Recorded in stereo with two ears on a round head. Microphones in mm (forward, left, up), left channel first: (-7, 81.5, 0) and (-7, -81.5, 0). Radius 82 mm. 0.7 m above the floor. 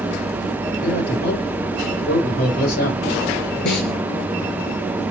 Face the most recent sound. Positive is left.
turn(degrees=65)  # may be behind; listen again after turning